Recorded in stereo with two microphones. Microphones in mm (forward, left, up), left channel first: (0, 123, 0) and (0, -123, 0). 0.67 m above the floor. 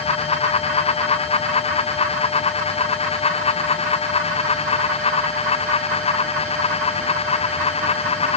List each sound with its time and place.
Only background noise.